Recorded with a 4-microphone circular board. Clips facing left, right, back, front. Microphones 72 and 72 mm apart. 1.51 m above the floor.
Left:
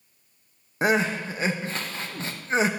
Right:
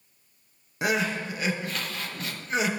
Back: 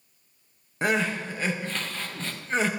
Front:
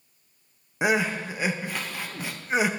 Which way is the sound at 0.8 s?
70° left.